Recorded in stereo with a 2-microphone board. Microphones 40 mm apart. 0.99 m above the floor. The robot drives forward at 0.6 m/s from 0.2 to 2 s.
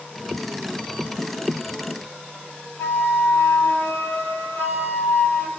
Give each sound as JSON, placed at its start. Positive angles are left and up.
{"t": 2.8, "sound": "a flute", "side_deg": 85, "distance_m": 5.5}